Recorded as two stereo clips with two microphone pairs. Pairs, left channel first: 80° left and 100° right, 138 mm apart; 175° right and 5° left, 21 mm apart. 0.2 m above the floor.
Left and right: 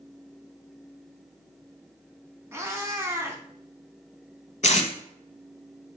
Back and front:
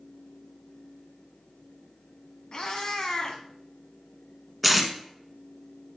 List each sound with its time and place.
2.5 s a cat meowing: 170° right, 0.7 m
4.6 s tape being pulled: 95° left, 0.6 m